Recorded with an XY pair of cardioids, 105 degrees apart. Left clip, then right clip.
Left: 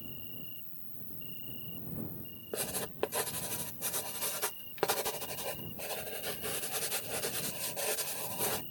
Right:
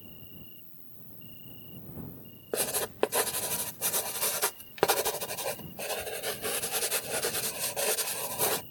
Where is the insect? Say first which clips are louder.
Left 3 dB; 30° left.